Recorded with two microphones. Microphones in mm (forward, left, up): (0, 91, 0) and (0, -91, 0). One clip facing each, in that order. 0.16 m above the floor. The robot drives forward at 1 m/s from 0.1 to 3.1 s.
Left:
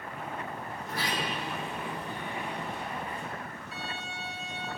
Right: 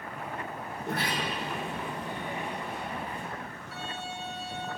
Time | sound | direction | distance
0.8 | a sliding door | 65° right (ahead or behind) | 1.8 m
3.7 | a violin | 20° left (ahead or behind) | 1.8 m